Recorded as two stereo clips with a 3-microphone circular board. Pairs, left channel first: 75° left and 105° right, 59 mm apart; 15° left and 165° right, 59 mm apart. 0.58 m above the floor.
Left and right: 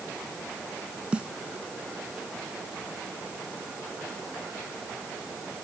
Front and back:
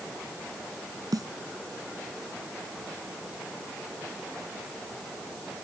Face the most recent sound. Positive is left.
turn(degrees=-175)